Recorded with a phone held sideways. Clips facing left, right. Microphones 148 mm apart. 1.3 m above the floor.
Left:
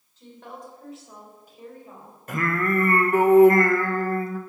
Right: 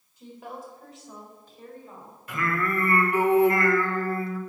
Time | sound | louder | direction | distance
0.2 | a woman speaking | right 2 dB | 10° right (ahead or behind) | 4.5 m
2.3 | singing | left 3 dB | 50° left (ahead or behind) | 1.2 m